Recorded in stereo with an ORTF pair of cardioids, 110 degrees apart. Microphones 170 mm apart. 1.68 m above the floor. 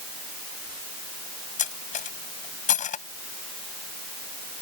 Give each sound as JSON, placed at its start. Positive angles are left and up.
{"t": 1.6, "sound": "cutlery clinking", "azimuth_deg": 50}